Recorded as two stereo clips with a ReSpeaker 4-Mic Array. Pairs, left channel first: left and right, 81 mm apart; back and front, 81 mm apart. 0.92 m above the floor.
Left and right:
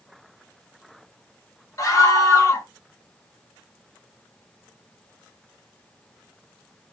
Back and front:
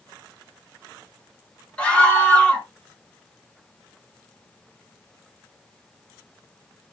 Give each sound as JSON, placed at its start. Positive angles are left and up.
{"t": 1.8, "sound": "a scream", "azimuth_deg": 110, "distance_m": 1.0}